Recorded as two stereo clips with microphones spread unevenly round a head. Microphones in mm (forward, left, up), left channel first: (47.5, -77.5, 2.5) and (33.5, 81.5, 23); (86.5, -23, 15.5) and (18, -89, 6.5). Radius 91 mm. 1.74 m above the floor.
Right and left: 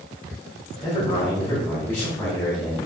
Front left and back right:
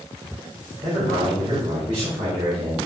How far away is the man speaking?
About 3.5 m.